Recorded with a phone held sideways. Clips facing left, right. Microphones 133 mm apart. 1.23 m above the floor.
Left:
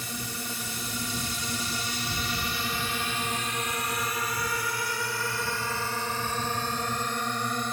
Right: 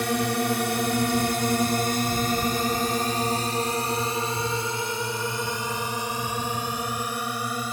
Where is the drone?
75° right (ahead or behind); by 7.7 s 5° right (ahead or behind).